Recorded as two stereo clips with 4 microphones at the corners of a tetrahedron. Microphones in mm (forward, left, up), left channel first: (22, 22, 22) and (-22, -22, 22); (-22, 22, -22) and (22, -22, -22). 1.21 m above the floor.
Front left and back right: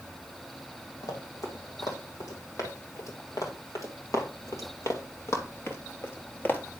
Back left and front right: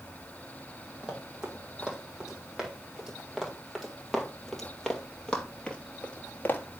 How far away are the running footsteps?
About 3.5 m.